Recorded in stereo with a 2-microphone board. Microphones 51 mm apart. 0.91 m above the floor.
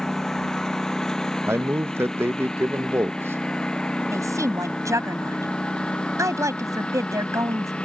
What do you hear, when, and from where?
0.0 s a lawn mower: 5° left (ahead or behind); by 7.9 s 15° left (ahead or behind)
1.5 s a man speaking: 50° right (ahead or behind)
4.1 s a woman speaking: 80° right